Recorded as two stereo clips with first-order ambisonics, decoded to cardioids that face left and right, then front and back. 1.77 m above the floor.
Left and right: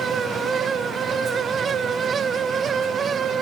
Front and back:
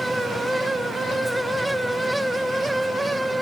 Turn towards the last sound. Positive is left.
No sound to turn to.